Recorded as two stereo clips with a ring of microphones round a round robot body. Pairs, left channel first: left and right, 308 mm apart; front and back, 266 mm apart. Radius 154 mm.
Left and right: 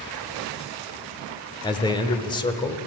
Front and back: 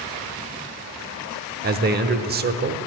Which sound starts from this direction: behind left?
A man speaking, at 1.6 s.